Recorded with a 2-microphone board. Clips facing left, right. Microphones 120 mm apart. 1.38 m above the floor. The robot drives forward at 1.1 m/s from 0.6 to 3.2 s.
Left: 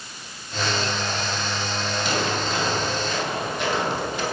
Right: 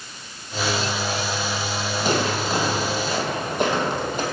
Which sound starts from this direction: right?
Footsteps, at 2.0 s.